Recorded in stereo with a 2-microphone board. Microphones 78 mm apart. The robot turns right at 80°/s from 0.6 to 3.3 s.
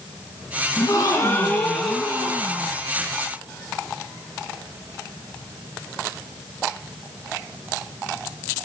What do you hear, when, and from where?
0.8 s a gasp: 95° left, 3 m; by 2.8 s 105° right, 3 m